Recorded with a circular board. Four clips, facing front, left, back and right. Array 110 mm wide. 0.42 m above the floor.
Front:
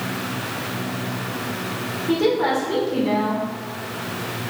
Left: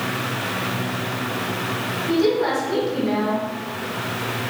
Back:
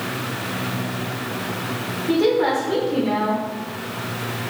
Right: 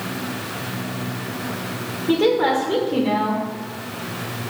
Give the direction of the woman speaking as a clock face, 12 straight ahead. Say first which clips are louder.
Right 2 dB, back 1 dB; 3 o'clock.